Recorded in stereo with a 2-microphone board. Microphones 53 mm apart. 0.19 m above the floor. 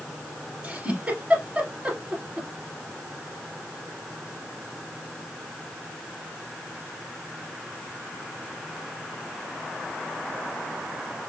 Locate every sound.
0.6 s a giggle: 30° right (ahead or behind), 1.3 m